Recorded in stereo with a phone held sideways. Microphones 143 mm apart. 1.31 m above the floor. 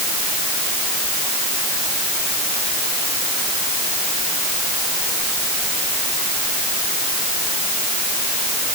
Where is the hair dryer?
No hair dryer in this recording.